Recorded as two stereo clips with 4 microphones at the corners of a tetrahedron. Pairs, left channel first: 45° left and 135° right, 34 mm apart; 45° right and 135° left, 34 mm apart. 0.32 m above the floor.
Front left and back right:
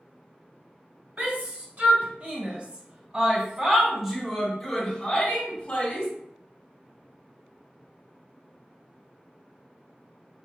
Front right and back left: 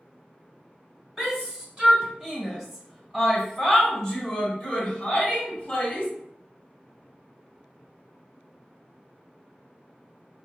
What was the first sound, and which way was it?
A shout, 155° right.